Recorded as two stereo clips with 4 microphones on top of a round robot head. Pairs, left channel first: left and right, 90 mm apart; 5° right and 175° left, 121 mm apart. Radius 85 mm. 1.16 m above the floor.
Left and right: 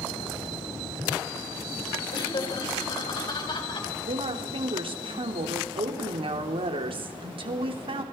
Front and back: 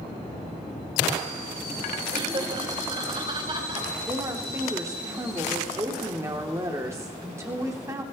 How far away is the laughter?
About 4.5 m.